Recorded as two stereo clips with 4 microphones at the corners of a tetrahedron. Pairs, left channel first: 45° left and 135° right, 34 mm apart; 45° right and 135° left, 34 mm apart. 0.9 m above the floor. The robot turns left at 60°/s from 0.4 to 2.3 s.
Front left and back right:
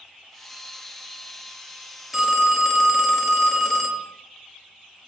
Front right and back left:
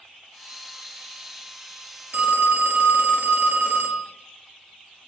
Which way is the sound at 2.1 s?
140° left.